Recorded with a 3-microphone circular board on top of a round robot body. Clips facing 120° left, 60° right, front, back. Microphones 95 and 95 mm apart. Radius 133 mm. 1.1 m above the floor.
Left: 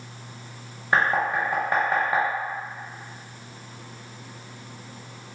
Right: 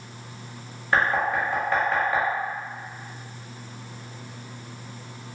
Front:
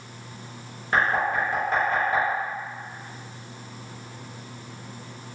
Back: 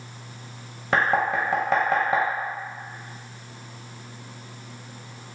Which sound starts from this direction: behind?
Knocking, at 0.9 s.